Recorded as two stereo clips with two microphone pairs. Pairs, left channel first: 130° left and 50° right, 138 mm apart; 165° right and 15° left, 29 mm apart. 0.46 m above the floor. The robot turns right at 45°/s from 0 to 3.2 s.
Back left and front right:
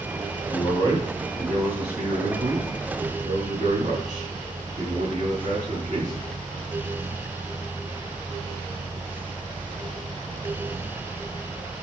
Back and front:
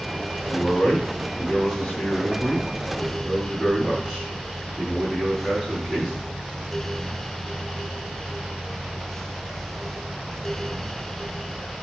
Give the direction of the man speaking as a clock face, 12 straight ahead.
6 o'clock.